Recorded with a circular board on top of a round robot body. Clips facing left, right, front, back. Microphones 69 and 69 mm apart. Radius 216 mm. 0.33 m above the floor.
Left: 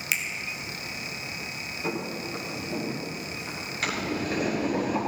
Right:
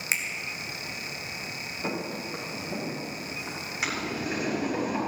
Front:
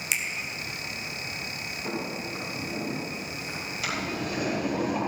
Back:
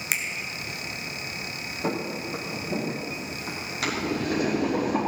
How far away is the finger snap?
About 2 m.